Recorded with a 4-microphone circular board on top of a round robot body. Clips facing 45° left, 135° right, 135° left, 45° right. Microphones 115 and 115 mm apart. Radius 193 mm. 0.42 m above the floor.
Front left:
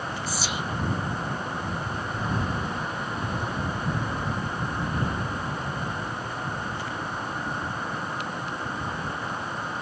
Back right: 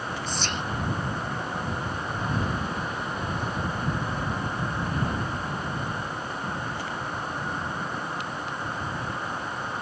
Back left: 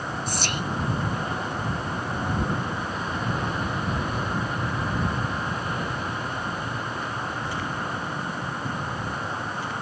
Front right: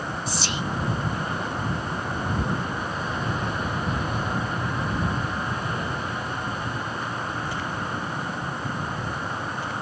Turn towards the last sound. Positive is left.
turn(degrees=125)